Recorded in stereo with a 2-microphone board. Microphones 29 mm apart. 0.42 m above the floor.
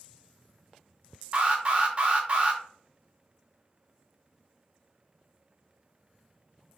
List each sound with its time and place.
1.3 s an alarm: 40° right (ahead or behind), 0.7 m